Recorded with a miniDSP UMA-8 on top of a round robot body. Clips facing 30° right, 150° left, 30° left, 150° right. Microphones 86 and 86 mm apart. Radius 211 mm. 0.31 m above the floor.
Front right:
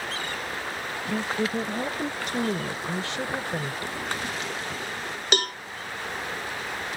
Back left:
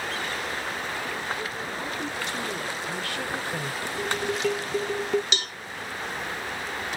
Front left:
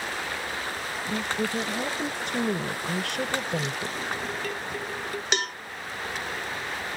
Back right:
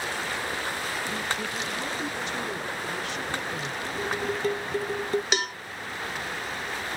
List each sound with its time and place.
1.1 s a woman speaking: 20° right; by 3.9 s 55° left
4.0 s dishes clattering: 150° left
5.3 s a cowbell: 60° right